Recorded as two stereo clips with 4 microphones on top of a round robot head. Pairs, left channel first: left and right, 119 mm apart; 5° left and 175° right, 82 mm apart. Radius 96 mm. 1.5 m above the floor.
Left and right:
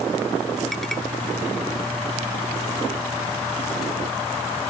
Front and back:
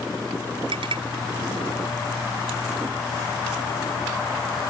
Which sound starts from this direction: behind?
A clink, at 0.7 s.